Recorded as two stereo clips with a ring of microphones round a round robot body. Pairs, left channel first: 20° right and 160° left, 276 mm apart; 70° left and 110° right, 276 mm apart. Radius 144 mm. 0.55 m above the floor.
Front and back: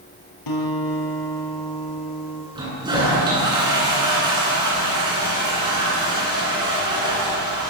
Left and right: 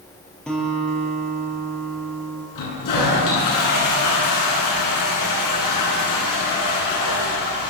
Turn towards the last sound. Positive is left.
turn(degrees=80)